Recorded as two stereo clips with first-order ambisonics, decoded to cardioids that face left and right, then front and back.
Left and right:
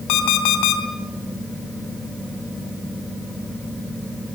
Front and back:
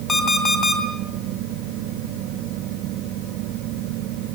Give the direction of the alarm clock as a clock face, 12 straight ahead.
10 o'clock.